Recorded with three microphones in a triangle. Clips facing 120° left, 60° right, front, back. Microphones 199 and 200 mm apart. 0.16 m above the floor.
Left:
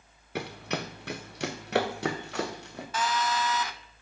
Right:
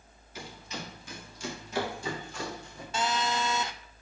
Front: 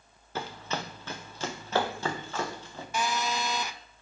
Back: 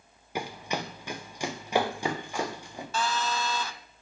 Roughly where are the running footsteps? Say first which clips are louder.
Left 8 dB, back 2 dB; left.